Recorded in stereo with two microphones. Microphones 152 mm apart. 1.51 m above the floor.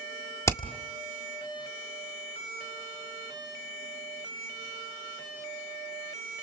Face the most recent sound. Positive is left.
turn(degrees=20)  # may be behind; listen again after turning